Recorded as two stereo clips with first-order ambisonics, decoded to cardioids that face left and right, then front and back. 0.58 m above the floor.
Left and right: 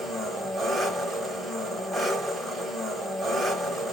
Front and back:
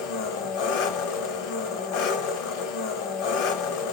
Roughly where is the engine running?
Ahead.